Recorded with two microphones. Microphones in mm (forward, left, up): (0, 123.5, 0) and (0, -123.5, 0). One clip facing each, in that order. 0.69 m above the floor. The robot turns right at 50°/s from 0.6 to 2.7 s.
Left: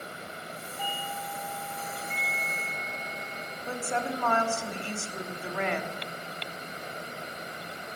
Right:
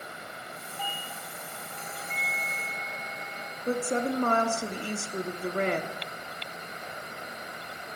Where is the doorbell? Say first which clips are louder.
Left 3 dB; 160° left, 2.5 m; by 3.6 s 100° right, 2.5 m.